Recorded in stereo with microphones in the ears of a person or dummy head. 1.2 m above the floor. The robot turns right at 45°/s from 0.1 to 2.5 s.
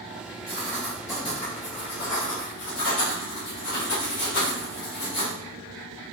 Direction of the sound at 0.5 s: 10° right.